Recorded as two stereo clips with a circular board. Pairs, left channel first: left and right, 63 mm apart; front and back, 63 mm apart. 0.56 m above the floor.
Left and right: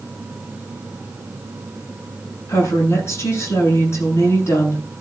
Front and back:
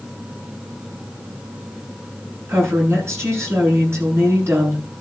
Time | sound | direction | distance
2.5 | a woman speaking | 135° left | 7.5 m